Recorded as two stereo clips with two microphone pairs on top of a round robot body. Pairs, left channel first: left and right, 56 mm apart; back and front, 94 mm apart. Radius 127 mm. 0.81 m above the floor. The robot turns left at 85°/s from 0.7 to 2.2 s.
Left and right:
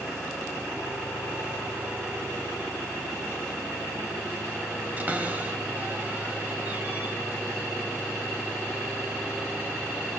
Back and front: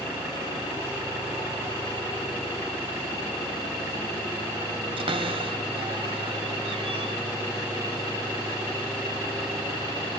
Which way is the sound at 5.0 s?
30° right.